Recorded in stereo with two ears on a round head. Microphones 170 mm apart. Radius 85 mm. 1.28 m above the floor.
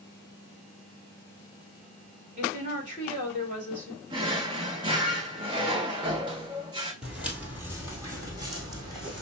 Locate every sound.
2.4 s a woman speaking: 40° right (ahead or behind), 2.5 m
4.1 s a drawer: 25° right (ahead or behind), 1.4 m
7.0 s footsteps: 5° right (ahead or behind), 1.5 m; by 9.2 s 25° right (ahead or behind), 2 m